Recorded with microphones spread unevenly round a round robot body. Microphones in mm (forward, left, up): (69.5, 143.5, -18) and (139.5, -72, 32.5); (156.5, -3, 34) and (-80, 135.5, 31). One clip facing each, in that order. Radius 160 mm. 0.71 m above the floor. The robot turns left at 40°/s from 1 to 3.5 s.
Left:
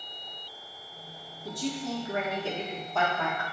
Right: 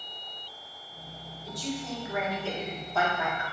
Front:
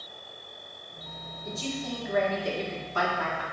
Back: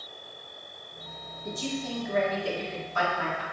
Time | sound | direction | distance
1.4 | a man speaking | 80° left | 1.3 m